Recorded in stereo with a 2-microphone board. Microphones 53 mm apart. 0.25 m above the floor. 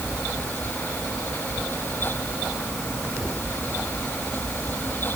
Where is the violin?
No violin in this recording.